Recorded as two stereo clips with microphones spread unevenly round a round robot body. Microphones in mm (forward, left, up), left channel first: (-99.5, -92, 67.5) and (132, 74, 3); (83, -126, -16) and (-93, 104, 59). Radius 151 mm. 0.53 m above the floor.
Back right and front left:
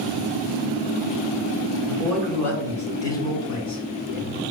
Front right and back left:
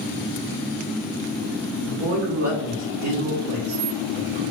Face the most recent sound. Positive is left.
turn(degrees=140)